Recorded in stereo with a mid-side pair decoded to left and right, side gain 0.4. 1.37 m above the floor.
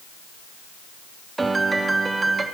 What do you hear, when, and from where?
1.4 s a piano: 30° right, 2.5 m